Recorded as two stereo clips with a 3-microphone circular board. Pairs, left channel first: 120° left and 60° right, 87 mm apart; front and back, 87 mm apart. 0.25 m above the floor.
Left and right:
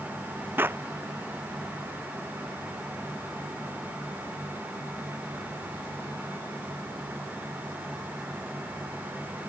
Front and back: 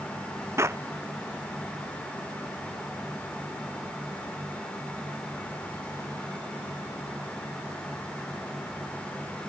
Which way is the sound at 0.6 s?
125° right.